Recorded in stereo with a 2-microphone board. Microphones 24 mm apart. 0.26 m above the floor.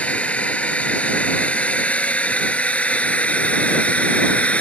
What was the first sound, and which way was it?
A drone, 70° left (ahead or behind).